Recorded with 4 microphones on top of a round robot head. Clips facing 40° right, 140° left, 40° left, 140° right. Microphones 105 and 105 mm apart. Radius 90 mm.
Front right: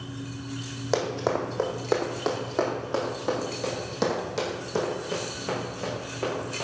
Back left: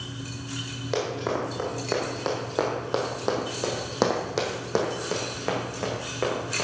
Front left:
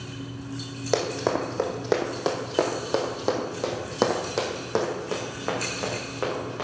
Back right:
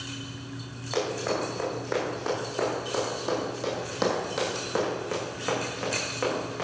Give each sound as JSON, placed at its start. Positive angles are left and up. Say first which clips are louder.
{"t": 0.9, "sound": "running footsteps", "louder": "front right 2 dB, front left 4 dB", "azimuth_deg": 15, "distance_m": 2.5}